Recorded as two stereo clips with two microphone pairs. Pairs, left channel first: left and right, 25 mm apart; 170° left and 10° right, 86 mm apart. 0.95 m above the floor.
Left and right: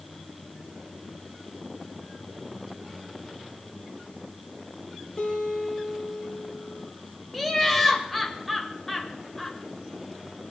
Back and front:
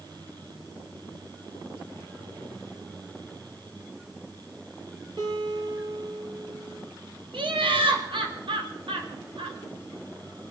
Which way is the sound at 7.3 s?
Straight ahead.